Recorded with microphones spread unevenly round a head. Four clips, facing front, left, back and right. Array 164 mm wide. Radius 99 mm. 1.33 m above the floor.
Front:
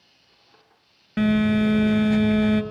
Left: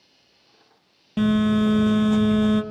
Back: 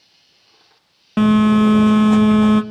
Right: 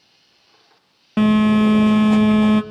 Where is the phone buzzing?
130° right, 2.0 m.